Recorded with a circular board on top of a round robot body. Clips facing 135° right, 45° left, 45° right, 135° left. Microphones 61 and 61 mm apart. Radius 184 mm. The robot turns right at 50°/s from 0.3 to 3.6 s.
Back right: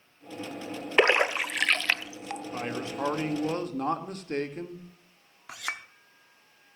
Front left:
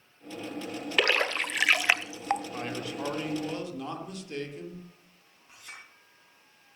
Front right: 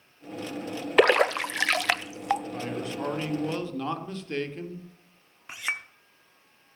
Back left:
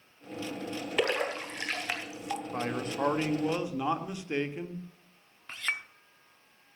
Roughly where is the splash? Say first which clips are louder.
Back right 4 dB, front right 10 dB; right.